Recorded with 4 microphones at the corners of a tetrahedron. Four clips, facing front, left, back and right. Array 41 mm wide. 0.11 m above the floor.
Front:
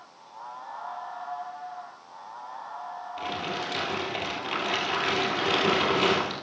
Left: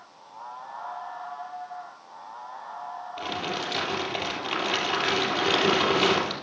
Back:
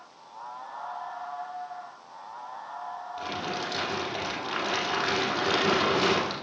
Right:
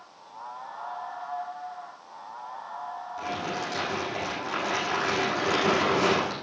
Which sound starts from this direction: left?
Crumpling, at 3.2 s.